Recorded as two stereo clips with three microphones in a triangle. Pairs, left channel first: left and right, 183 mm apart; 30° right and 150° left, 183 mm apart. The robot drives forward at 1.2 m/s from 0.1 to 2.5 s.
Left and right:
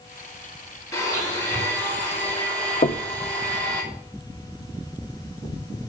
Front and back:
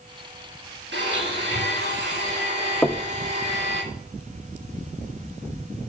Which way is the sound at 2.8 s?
55° left.